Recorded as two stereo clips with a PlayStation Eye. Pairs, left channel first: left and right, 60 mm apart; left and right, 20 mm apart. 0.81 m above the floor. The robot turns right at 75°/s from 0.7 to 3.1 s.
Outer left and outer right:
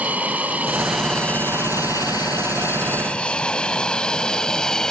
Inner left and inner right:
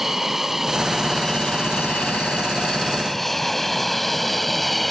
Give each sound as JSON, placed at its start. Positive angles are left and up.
{"t": 0.0, "sound": "an aircraft", "side_deg": -25}